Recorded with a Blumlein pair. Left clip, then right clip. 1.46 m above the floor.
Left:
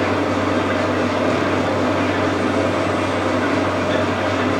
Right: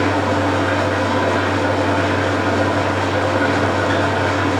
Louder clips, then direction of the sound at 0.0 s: Right 2 dB; 60° right.